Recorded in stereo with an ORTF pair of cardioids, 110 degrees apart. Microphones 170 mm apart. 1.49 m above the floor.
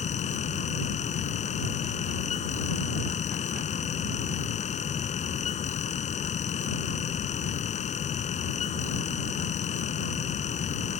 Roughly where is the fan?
Ahead left.